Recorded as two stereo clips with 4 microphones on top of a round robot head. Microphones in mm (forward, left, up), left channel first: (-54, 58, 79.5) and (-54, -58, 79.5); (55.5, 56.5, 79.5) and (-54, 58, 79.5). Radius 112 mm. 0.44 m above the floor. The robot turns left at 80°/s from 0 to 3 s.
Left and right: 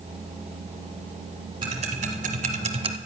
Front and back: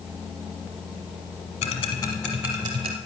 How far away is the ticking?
About 1.1 m.